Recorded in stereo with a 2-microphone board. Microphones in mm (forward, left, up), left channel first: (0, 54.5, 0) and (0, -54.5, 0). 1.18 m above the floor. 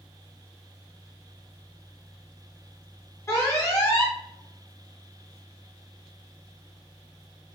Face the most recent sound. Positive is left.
turn(degrees=30)  # may be behind; listen again after turning